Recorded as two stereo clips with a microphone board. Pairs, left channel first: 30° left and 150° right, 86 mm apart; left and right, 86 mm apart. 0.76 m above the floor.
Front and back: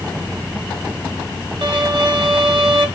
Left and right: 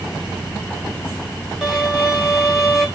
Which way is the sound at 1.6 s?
Straight behind.